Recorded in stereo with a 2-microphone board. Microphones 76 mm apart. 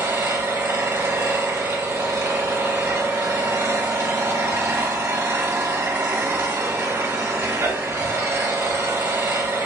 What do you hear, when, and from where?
0.0 s an engine running: 40° right (ahead or behind), 0.8 m